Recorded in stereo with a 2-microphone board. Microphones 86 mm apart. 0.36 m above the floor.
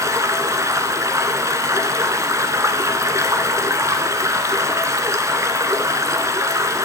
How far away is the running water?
About 1.2 m.